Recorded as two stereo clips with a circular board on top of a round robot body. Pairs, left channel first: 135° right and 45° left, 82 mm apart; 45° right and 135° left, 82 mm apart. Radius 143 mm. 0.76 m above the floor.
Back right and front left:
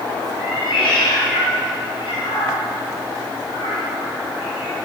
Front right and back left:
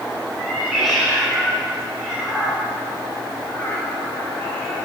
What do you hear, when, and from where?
0.4 s a cat meowing: 135° right, 5.5 m; by 4.8 s 110° right, 3.5 m